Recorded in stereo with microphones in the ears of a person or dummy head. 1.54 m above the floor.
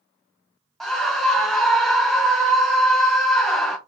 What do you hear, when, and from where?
0.8 s a scream: 5° left (ahead or behind), 0.9 m